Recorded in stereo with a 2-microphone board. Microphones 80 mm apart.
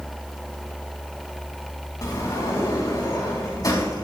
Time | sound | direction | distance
2.0 | a sliding door | 50° left (ahead or behind) | 4 m